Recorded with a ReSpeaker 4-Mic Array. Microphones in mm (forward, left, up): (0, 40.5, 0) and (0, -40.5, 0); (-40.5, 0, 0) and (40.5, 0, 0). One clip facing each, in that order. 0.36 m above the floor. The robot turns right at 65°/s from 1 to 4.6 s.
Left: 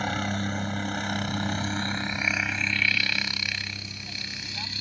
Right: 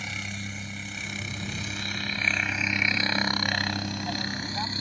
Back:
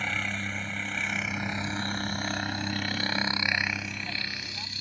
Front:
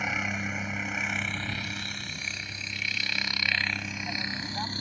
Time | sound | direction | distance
0.0 | a helicopter | 75° left | ?